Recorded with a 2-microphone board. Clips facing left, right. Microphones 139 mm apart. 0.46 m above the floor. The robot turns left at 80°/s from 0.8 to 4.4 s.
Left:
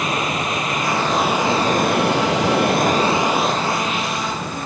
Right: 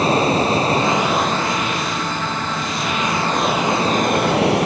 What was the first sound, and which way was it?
Running water, 150° right.